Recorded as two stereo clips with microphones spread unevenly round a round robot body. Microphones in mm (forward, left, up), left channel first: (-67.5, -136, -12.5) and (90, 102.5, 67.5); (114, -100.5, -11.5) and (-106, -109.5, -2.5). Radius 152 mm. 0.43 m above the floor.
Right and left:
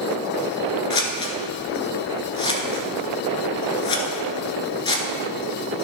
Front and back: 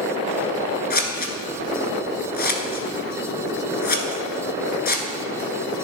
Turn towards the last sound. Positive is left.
turn(degrees=-45)